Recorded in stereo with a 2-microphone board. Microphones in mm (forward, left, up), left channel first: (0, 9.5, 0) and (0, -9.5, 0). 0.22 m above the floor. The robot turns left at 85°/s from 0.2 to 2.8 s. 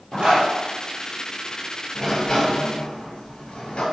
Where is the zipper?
80° right, 1.3 m; by 0.5 s 75° right (ahead or behind), 1.3 m.